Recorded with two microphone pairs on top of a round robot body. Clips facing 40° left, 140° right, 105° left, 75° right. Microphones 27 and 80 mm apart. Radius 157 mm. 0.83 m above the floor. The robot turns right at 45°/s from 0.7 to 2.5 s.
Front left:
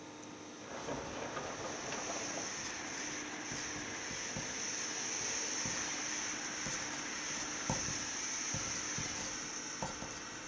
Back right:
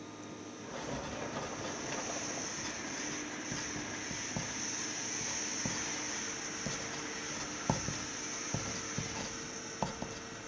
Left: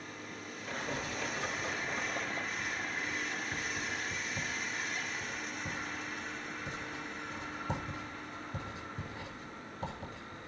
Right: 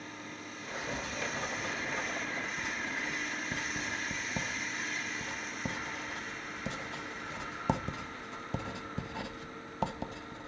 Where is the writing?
155° right, 0.9 m; by 10.5 s 75° right, 0.9 m.